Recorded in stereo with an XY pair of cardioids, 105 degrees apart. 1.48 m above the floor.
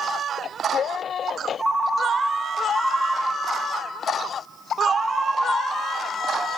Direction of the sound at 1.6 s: 25° right.